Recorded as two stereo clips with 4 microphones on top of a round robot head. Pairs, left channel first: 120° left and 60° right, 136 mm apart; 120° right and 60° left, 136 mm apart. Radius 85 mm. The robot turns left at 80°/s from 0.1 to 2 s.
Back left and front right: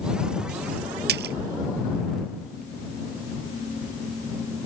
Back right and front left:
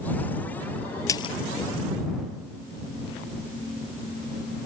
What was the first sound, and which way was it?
A splash, 55° right.